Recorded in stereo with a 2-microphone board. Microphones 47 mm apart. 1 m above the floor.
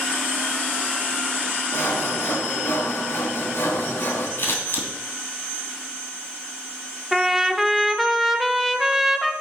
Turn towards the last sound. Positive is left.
turn(degrees=-5)  # may be behind; listen again after turning